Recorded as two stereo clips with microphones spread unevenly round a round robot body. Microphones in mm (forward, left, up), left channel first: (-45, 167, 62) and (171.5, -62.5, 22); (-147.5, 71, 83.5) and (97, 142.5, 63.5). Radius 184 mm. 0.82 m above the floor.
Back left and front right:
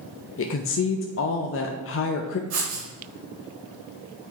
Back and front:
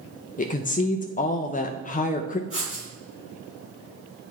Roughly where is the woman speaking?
Behind left.